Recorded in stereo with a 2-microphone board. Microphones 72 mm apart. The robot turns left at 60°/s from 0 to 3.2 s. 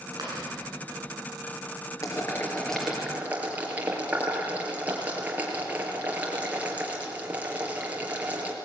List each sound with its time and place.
0.2 s chewing: 70° right (ahead or behind), 9.5 m; by 0.5 s 85° right, 9.5 m
2.0 s boiling: 45° left (ahead or behind), 4.5 m; by 8.6 s 20° right (ahead or behind), 4.5 m